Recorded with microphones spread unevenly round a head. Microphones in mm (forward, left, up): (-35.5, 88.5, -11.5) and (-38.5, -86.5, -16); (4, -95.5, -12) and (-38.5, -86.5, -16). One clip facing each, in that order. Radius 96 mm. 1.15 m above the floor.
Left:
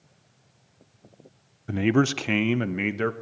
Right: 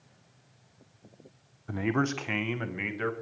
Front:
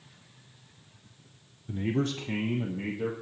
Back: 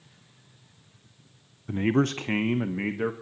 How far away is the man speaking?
About 0.6 m.